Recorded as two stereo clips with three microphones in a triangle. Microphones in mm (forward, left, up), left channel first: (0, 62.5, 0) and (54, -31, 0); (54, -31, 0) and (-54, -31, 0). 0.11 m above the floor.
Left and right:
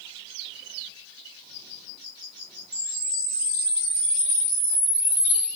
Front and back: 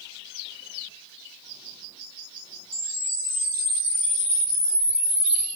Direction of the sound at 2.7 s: 135° right.